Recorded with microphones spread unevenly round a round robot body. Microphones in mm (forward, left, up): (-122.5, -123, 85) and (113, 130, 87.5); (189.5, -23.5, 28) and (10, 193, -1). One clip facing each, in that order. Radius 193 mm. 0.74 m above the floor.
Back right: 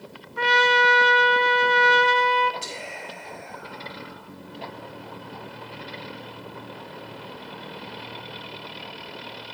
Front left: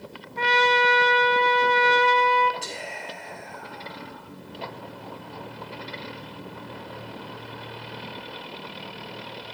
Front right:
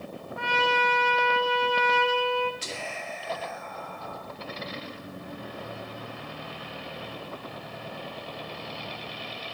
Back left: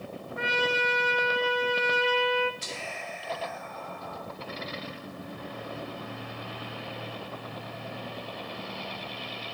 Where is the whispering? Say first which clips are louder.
Even, front right 2 dB; 55° right, 2 m.